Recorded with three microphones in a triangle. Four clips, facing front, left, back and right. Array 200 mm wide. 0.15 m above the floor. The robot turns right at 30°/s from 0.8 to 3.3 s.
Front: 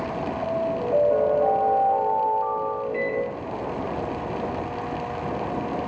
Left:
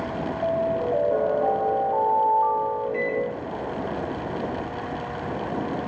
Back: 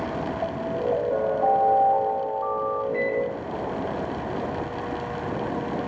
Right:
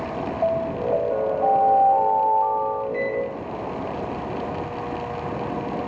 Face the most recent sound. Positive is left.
turn(degrees=35)